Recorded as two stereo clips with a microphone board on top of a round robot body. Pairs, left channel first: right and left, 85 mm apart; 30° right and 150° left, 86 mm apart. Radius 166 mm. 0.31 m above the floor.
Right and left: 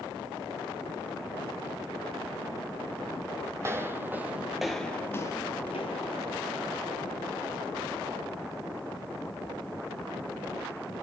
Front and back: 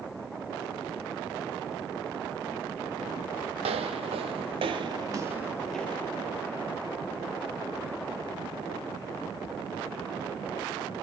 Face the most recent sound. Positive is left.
turn(degrees=-95)